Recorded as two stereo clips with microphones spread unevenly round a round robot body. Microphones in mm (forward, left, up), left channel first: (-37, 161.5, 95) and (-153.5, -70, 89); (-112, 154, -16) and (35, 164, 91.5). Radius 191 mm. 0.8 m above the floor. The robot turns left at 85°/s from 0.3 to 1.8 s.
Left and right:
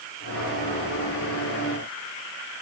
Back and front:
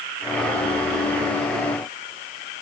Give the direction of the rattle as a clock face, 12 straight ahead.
No rattle in this recording.